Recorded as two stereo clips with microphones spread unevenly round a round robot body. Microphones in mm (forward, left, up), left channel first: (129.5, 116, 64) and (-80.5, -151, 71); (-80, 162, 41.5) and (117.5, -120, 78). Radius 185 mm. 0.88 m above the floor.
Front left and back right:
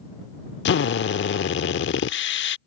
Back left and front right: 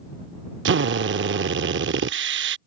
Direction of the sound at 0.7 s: 5° right.